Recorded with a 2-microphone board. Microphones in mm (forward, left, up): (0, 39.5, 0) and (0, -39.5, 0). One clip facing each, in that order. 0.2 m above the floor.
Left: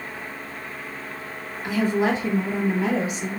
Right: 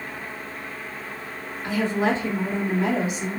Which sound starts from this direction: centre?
A woman speaking, at 1.6 s.